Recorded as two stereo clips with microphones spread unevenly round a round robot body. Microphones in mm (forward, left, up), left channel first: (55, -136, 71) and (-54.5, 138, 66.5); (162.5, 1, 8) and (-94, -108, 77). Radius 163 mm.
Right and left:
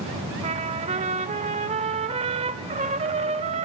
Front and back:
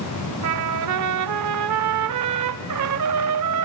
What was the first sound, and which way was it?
A trumpet, straight behind.